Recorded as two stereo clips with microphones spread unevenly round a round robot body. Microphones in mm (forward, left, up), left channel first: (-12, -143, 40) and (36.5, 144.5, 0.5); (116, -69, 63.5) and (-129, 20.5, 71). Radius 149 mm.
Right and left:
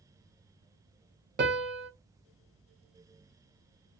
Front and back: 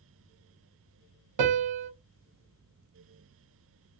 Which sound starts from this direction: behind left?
A piano, at 1.4 s.